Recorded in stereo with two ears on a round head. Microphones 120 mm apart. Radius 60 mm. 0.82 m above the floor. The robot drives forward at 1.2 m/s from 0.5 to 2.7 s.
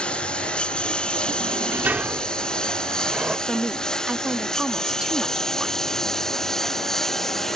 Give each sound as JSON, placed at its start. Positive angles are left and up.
{"t": 0.0, "sound": "a lawn mower", "side_deg": 10}
{"t": 1.4, "sound": "a sliding door", "side_deg": -20}
{"t": 3.5, "sound": "a woman speaking", "side_deg": -5}